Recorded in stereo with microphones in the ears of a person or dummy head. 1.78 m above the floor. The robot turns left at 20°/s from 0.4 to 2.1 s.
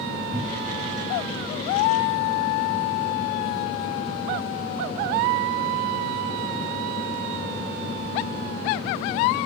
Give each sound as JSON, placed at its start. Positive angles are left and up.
{"t": 0.3, "sound": "a cupboard door", "side_deg": -10, "distance_m": 3.0}